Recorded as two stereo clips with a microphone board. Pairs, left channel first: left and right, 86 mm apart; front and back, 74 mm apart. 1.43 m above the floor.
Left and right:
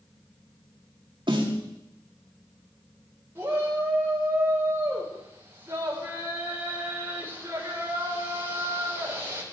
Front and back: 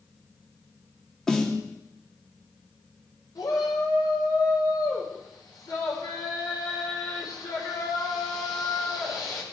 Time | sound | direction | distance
1.3 | a snare drum | 80° right | 2 m
3.4 | a shout | 30° right | 4 m